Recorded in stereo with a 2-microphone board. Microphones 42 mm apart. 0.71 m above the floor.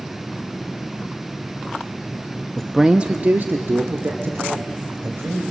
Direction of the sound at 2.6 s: 15° left (ahead or behind).